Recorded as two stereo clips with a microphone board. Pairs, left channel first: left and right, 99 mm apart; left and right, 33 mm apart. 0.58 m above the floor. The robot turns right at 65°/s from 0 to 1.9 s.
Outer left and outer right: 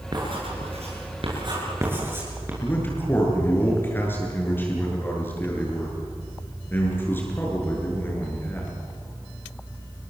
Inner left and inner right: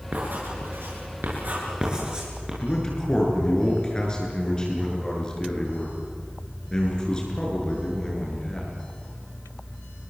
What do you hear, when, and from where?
0.1 s writing: 40° right (ahead or behind), 8 m; by 2.5 s 20° right (ahead or behind), 8 m
2.6 s a man speaking: 20° left (ahead or behind), 8 m